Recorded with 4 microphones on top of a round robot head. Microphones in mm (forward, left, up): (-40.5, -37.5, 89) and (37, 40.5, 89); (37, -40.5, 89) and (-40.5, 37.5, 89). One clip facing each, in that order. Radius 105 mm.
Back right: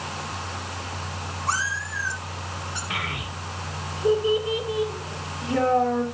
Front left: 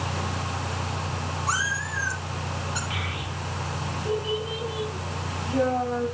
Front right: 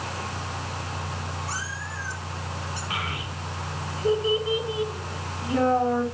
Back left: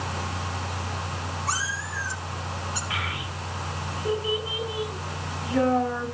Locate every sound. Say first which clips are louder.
1.5 s a cat meowing: back right 3 dB, back left 3 dB; 125° left, 5 m
2.9 s a child speaking: back right 1 dB, even; 105° right, 5 m